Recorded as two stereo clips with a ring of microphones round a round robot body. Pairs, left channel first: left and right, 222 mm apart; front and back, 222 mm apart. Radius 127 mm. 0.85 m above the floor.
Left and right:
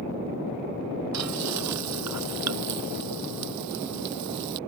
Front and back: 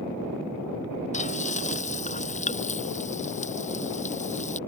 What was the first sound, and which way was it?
Frying, 60° right.